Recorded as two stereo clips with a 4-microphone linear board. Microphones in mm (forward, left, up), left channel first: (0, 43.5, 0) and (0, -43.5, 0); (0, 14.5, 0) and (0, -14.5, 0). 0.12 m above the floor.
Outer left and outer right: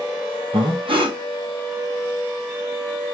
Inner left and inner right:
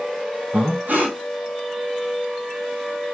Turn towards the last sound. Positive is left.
turn(degrees=-75)  # may be behind; listen again after turning